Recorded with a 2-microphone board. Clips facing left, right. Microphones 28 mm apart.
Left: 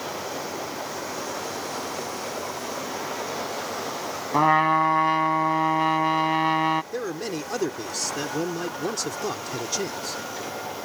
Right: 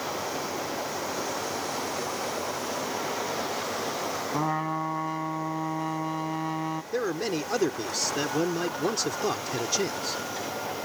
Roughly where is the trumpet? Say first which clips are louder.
Left 12 dB; left.